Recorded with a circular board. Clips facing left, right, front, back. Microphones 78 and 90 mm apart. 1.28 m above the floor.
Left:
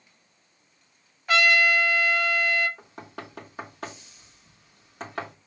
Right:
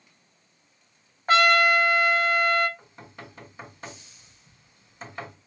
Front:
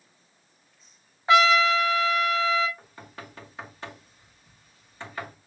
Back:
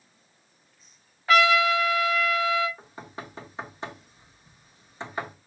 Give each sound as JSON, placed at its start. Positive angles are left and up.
{"t": 1.3, "sound": "a trumpet", "azimuth_deg": -60, "distance_m": 0.8}
{"t": 2.8, "sound": "knocking", "azimuth_deg": 110, "distance_m": 1.2}